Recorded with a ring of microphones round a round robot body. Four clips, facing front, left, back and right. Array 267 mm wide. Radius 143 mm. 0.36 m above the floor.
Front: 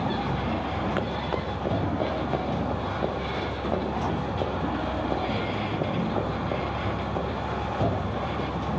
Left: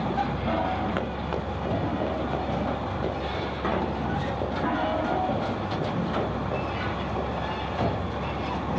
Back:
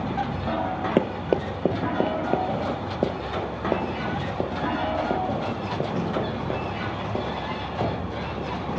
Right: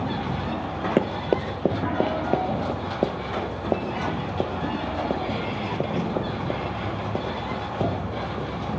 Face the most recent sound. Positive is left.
turn(degrees=-125)